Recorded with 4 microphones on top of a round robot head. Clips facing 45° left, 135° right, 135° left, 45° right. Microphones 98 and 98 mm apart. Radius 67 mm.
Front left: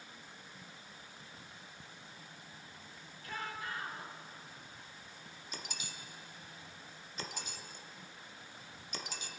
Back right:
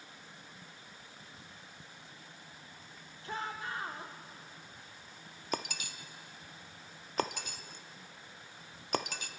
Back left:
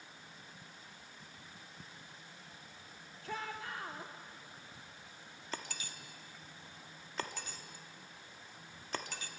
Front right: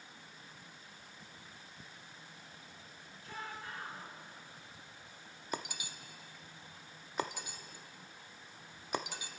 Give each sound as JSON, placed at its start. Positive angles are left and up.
{"t": 3.2, "sound": "a shout", "azimuth_deg": 160, "distance_m": 2.5}
{"t": 5.5, "sound": "breaking glass", "azimuth_deg": -115, "distance_m": 0.7}